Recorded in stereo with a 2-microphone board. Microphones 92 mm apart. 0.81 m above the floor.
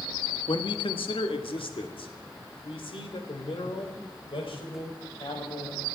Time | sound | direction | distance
0.5 | a man speaking | 65° left (ahead or behind) | 1.0 m